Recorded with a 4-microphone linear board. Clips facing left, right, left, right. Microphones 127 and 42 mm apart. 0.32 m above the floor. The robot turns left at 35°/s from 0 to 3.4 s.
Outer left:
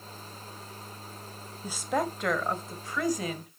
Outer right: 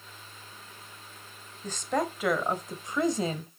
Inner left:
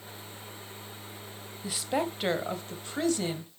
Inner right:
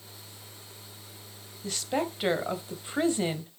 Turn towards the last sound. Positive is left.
turn(degrees=-45)